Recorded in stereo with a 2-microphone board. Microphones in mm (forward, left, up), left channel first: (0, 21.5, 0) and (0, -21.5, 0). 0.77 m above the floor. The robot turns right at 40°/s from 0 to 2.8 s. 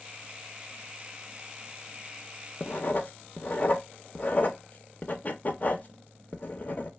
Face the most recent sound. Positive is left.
turn(degrees=40)  # may be behind; listen again after turning